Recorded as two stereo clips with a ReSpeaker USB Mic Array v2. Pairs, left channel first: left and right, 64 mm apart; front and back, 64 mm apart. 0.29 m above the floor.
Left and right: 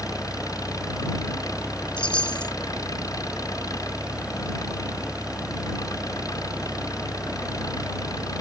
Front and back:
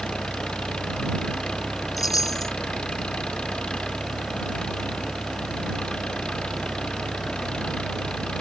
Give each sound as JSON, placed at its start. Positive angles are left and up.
{"t": 0.0, "sound": "an engine running", "azimuth_deg": 75}
{"t": 2.0, "sound": "a chime", "azimuth_deg": 15}